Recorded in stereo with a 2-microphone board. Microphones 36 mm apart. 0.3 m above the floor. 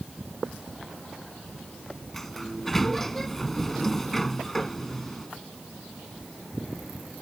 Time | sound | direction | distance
2.1 | a sliding door | 10° left (ahead or behind) | ?